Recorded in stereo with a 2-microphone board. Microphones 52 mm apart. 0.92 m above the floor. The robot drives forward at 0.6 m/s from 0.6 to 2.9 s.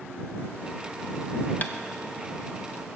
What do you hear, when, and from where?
1.6 s tapping: 30° left (ahead or behind), 0.7 m